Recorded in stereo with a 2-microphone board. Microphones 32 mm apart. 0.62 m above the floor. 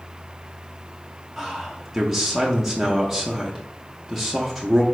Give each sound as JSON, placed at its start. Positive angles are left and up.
{"t": 1.4, "sound": "a man speaking", "side_deg": -5, "distance_m": 0.5}